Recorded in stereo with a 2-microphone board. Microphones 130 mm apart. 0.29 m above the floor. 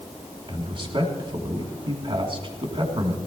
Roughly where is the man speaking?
Right.